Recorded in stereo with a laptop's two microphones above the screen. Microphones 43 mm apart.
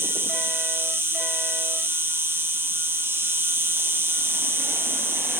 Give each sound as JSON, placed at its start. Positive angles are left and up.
{"t": 0.0, "sound": "an insect", "side_deg": -70, "distance_m": 2.5}